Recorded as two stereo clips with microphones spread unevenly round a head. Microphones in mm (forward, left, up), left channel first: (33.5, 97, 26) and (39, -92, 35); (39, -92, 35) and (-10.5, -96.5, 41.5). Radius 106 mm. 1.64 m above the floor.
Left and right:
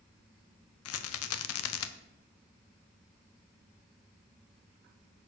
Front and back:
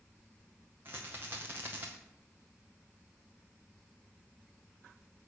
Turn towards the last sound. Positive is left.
turn(degrees=110)